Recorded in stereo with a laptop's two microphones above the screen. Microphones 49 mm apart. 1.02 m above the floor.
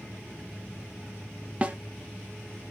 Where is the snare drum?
25° right (ahead or behind), 0.8 m.